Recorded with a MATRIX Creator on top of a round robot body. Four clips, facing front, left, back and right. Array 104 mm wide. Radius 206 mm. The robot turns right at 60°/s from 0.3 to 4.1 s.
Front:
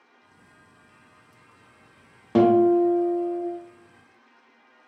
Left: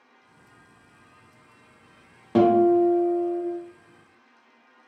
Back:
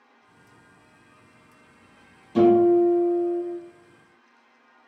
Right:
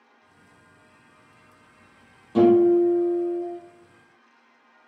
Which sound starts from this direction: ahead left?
A guitar, at 2.4 s.